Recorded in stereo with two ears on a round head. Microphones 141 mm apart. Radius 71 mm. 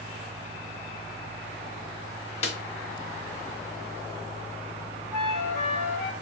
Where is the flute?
5° left (ahead or behind), 1.0 m.